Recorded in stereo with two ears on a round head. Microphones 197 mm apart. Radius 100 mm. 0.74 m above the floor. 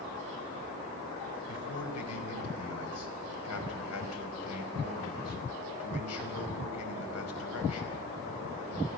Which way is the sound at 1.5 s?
80° left.